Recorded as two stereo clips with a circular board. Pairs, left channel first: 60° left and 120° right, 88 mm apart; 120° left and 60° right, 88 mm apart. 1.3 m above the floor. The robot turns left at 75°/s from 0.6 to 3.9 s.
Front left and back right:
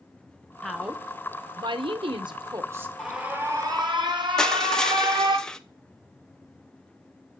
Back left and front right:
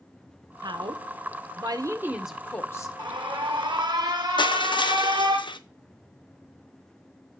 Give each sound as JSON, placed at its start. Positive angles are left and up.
{"t": 0.6, "sound": "a woman speaking", "azimuth_deg": -20, "distance_m": 1.0}
{"t": 3.0, "sound": "an alarm", "azimuth_deg": -25, "distance_m": 1.4}
{"t": 4.4, "sound": "crushing", "azimuth_deg": 140, "distance_m": 0.6}